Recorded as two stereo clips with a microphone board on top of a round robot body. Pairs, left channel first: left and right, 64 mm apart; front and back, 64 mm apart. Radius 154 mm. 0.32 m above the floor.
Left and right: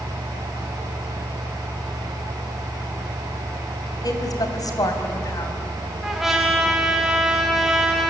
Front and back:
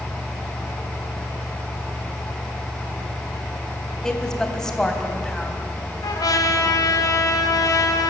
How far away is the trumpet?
About 3.5 m.